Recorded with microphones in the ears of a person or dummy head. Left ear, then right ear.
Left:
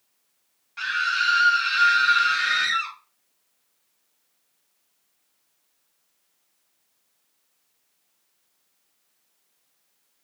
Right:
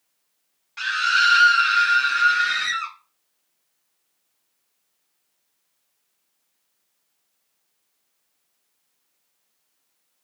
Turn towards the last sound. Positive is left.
turn(degrees=-10)  # may be behind; listen again after turning